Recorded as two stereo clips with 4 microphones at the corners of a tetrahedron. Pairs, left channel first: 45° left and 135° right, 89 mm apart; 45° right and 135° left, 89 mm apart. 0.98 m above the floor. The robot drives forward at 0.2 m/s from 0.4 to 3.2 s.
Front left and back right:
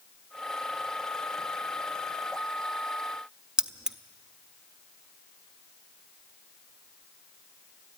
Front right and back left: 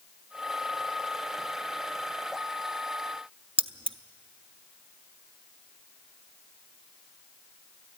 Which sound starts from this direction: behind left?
Keys jangling, at 3.6 s.